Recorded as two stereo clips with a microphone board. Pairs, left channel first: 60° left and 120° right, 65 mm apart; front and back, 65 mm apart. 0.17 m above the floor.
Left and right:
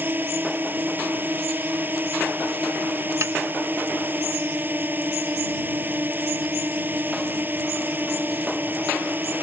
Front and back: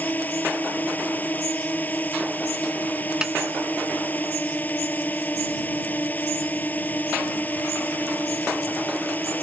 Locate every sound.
0.0 s a drone: 60° right
3.2 s a snare drum: 105° right